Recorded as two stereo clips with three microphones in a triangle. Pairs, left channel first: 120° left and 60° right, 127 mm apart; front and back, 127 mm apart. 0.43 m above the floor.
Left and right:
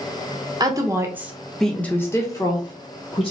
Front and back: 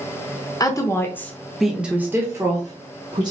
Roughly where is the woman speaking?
Ahead right.